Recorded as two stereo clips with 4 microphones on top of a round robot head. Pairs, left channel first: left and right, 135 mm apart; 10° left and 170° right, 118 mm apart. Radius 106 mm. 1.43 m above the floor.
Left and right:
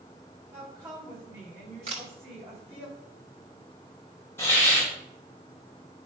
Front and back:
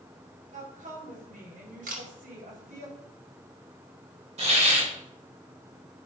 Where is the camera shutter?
145° right, 1.4 m.